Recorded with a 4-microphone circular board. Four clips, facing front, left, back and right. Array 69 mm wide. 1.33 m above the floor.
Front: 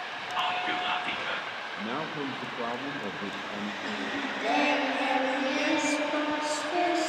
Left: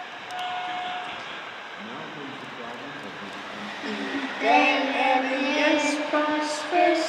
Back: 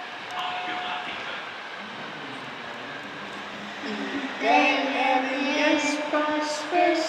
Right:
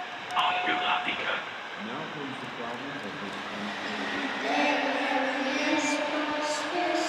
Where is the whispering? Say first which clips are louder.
Right 4 dB, front 1 dB; 80° right, 1.0 m.